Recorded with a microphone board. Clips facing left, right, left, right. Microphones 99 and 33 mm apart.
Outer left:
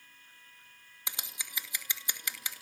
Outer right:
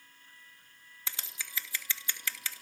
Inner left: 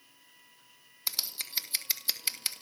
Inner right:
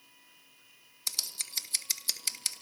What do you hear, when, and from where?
1.1 s scissors: 20° left (ahead or behind), 2.5 m